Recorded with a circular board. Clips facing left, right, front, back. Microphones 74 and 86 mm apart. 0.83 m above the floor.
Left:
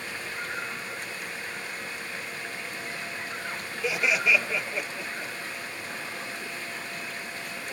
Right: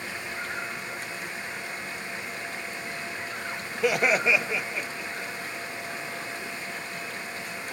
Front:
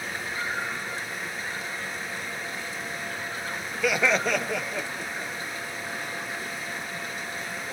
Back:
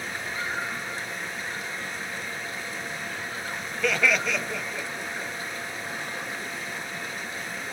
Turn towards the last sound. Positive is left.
turn(degrees=20)